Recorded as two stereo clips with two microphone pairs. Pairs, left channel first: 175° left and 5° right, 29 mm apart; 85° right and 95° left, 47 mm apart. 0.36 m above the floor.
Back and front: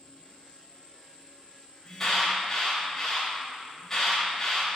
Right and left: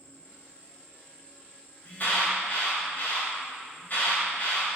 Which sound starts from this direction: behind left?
An insect, at 0.0 s.